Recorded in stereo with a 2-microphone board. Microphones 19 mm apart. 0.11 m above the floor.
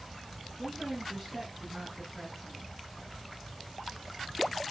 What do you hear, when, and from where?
0.6 s a woman speaking: 15° right (ahead or behind), 1.5 m